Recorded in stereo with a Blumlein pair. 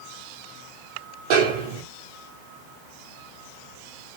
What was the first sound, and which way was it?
A snare drum, 45° right.